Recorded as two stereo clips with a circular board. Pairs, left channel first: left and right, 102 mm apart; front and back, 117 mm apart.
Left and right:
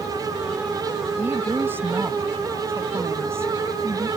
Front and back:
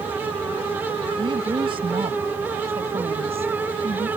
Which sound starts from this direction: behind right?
A woman speaking, at 1.2 s.